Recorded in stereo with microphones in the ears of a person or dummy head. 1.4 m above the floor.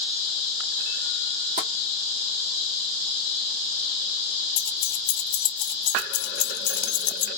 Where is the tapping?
40° right (ahead or behind), 1.4 m.